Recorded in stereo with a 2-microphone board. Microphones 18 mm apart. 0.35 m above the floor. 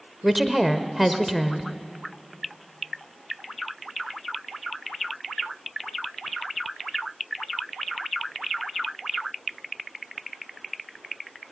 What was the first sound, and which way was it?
A woman speaking, 10° right (ahead or behind).